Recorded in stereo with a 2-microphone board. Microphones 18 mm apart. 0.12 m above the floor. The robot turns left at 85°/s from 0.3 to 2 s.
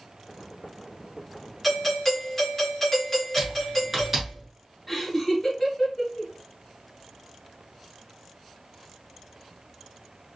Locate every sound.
1.6 s a doorbell: straight behind, 1.8 m; by 4.4 s 150° left, 1.8 m
3.4 s typing on a keyboard: 15° right (ahead or behind), 1.3 m
4.9 s laughter: 15° left (ahead or behind), 1.7 m